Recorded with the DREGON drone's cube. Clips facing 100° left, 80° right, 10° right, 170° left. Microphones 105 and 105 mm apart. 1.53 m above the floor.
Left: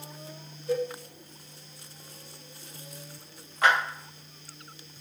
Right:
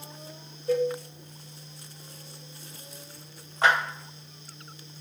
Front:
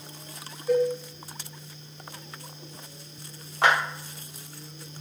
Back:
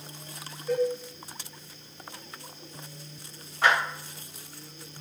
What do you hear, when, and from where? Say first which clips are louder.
0.7 s a cowbell: right 4 dB, front 3 dB; 85° right, 1.2 m
3.6 s a clap: even, front 1 dB; 20° right, 1.3 m